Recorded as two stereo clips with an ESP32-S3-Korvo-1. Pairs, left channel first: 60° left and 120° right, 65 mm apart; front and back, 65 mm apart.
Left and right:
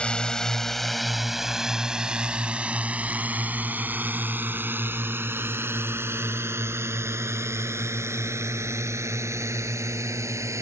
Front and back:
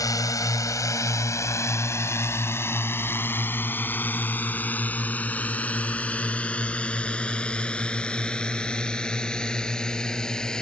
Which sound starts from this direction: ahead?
A drone, at 0.0 s.